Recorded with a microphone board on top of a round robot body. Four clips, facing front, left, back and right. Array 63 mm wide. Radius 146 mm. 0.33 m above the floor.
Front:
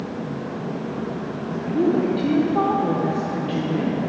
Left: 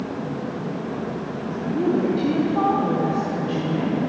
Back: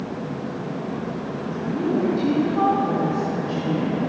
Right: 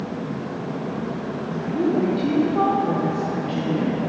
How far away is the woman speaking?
About 1.8 m.